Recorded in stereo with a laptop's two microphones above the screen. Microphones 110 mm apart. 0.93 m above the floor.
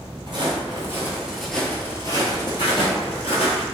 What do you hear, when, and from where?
0.3 s footsteps: 45° right (ahead or behind), 1.3 m; by 3.6 s 65° left (ahead or behind), 1.9 m